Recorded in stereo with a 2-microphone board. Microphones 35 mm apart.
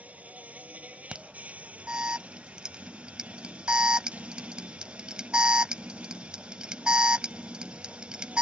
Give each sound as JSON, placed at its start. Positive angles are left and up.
{"t": 0.0, "sound": "an insect", "side_deg": -40}
{"t": 1.1, "sound": "an alarm", "side_deg": -25}